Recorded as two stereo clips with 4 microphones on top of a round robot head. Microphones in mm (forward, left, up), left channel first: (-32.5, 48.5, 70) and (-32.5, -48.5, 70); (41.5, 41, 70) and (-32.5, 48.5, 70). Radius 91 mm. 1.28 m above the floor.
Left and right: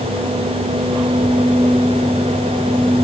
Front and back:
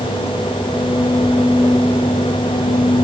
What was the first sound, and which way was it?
Only background noise.